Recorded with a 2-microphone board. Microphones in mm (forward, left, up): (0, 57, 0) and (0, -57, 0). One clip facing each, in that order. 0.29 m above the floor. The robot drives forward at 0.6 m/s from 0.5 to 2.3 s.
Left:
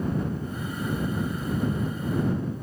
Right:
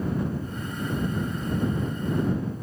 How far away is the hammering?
I don't hear hammering.